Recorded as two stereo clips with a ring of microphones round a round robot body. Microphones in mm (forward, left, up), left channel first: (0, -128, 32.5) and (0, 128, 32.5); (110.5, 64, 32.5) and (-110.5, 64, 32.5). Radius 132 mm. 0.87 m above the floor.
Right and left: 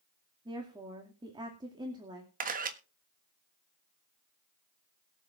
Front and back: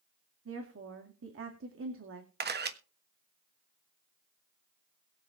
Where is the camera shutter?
145° left, 1.5 m.